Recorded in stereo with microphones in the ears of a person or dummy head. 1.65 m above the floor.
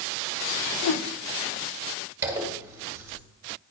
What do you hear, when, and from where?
0.8 s a whoosh: 60° left (ahead or behind), 0.5 m
2.2 s a zipper: 15° right (ahead or behind), 1.7 m